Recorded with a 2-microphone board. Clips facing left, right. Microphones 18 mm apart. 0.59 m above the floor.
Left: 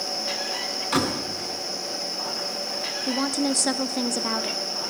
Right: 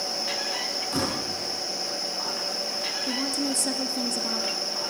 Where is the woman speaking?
35° left (ahead or behind), 1.0 m.